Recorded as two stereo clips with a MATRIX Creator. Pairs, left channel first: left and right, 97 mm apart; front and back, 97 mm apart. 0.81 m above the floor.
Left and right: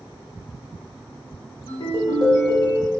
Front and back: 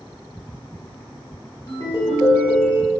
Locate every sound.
1.7 s a ringtone: 45° left, 1.7 m